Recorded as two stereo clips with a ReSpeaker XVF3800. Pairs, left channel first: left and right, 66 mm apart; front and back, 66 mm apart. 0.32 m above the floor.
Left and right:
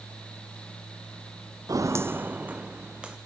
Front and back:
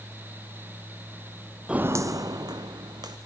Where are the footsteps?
100° right, 0.6 m; by 3.2 s 165° right, 2.5 m.